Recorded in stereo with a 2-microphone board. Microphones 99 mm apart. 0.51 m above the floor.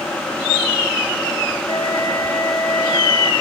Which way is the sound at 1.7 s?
55° left (ahead or behind).